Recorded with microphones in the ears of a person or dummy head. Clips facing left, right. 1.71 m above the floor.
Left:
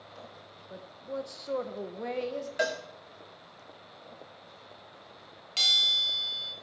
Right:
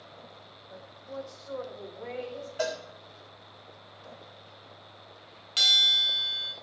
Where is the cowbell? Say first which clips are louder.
Even; 20° left (ahead or behind), 1.0 m.